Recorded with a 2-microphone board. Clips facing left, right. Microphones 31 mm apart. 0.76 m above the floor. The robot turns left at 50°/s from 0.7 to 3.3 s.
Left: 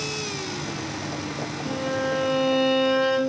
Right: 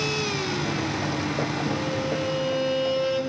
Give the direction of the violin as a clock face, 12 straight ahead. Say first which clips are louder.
Left 1 dB; 7 o'clock.